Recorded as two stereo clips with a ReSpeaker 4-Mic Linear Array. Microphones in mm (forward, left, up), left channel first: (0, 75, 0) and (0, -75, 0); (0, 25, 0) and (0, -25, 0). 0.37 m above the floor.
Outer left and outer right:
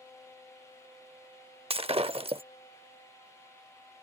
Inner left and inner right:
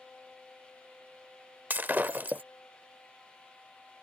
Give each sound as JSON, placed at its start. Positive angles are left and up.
{"t": 1.7, "sound": "breaking glass", "side_deg": -40}